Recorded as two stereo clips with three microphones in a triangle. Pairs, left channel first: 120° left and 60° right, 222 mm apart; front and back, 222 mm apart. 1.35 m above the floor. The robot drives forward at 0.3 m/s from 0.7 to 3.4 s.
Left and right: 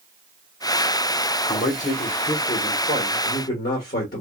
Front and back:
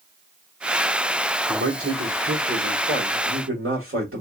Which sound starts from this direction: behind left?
A man speaking, at 1.5 s.